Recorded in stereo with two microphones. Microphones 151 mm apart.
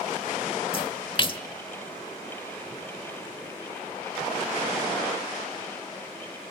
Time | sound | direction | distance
0.7 | a splash | 35° left (ahead or behind) | 0.9 m